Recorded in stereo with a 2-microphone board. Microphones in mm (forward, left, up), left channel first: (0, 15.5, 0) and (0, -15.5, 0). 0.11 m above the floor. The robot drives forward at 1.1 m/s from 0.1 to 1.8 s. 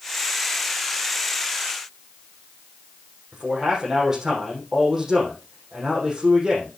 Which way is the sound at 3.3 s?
20° right (ahead or behind).